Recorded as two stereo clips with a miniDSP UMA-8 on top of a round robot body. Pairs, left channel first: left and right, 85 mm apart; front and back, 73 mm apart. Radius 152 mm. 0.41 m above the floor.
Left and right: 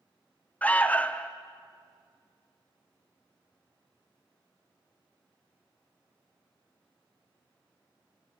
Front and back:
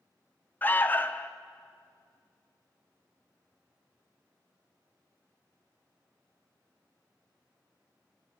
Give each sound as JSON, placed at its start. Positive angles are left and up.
{"t": 0.6, "sound": "an alarm", "azimuth_deg": 35, "distance_m": 1.1}